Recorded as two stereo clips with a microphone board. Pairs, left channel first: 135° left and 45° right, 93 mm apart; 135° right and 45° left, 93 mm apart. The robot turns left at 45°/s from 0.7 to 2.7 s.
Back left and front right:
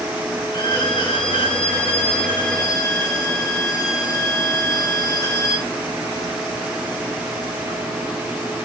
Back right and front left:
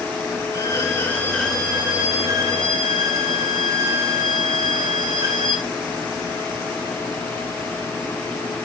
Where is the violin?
170° left, 2.5 m; by 5.7 s 80° left, 2.5 m.